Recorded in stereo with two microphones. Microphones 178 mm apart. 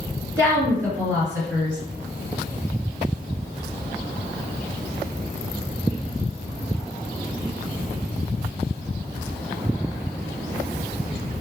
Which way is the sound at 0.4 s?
15° right (ahead or behind).